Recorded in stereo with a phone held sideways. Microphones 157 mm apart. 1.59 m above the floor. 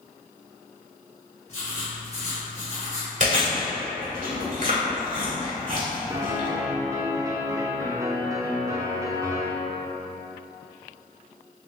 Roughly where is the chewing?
Right.